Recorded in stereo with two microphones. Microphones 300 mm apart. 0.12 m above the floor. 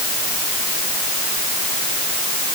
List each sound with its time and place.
Only background noise.